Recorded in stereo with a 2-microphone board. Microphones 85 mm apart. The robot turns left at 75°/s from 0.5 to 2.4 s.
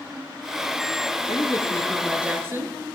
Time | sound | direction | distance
1.3 | a woman speaking | 55° left | 5.5 m